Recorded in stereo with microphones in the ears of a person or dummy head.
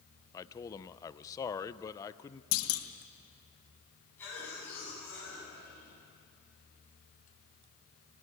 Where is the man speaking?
20° left (ahead or behind), 0.6 m.